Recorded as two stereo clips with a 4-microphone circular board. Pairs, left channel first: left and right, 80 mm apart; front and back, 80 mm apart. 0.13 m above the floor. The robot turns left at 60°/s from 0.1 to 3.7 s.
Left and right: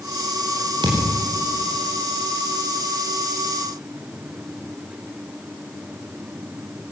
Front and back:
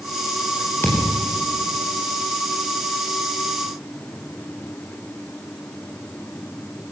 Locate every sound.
0.8 s a thud: 65° right, 5.5 m; by 1.2 s 85° right, 5.5 m